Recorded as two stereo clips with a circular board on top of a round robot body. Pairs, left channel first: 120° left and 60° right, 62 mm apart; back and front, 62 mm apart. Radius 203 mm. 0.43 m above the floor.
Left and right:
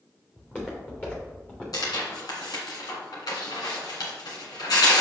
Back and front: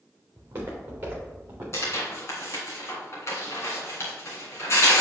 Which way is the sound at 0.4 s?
55° left.